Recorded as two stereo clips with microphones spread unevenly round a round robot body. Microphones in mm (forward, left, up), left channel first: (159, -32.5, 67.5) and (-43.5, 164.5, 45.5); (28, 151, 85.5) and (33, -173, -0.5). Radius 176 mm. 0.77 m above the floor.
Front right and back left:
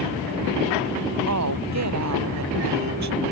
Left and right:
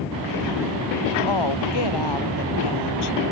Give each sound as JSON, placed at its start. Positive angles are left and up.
{"t": 1.3, "sound": "a woman speaking", "azimuth_deg": 110}